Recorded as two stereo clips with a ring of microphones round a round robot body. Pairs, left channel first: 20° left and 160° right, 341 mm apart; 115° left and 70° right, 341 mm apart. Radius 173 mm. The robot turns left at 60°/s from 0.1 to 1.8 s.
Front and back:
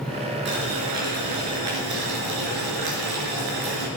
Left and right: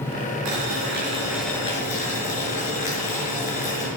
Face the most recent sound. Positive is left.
turn(degrees=180)